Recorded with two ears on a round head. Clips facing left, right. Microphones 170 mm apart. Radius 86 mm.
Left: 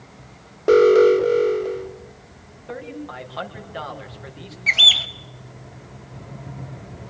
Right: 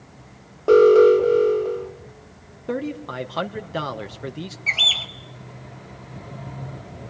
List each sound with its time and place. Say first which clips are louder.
0.7 s an alarm: right 1 dB; 15° left (ahead or behind), 1.7 m
2.7 s a man speaking: right 6 dB; 60° right (ahead or behind), 2 m
4.7 s a bird: left 2 dB; 15° left (ahead or behind), 0.9 m